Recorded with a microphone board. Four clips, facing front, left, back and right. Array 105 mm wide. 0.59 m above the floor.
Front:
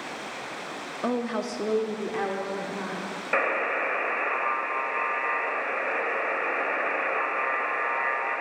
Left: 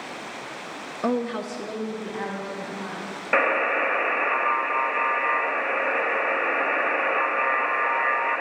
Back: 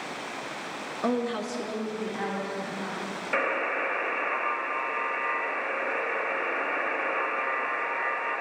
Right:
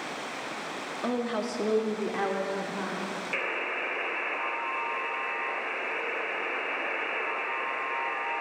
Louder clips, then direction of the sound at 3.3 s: Left 16 dB, front 2 dB; 80° left.